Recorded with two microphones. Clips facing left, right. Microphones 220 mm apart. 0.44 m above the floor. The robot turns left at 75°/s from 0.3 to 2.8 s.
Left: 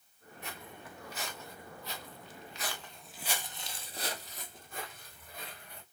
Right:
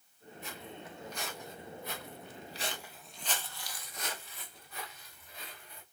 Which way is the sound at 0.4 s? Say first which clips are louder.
Right 2 dB; 65° left (ahead or behind).